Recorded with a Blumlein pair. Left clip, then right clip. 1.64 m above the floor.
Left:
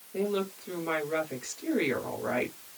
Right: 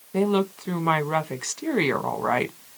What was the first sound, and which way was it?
A woman speaking, 60° right.